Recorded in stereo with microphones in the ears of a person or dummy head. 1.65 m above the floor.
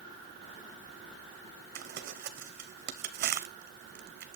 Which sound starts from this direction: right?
Crumpling, at 1.8 s.